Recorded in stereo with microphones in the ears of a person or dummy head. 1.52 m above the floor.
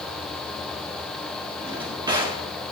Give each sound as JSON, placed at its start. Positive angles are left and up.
{"t": 1.6, "sound": "a drawer", "side_deg": -20, "distance_m": 2.0}